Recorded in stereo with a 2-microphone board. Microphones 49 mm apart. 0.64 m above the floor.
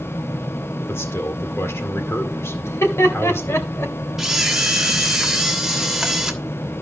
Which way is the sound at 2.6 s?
70° left (ahead or behind).